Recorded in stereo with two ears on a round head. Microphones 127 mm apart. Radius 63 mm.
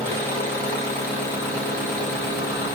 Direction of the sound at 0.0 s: 15° left (ahead or behind).